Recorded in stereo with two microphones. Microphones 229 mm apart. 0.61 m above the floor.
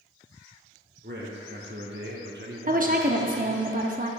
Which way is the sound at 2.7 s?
35° right (ahead or behind).